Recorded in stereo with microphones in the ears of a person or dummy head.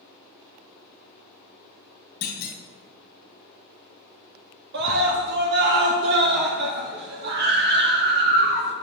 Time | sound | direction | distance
2.2 | a clunk | 50° left (ahead or behind) | 2.5 m
4.7 | a scream | 55° right (ahead or behind) | 1.2 m